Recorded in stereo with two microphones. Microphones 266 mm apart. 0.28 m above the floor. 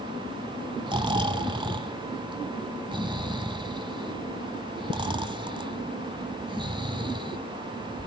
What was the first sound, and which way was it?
Snoring, 20° right (ahead or behind).